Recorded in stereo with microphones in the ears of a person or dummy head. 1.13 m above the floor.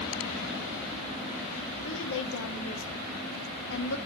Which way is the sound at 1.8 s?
70° left (ahead or behind).